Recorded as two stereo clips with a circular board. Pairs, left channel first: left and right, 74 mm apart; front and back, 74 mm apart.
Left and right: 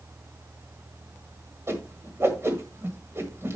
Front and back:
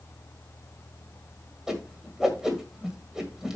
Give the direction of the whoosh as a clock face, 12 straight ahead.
3 o'clock.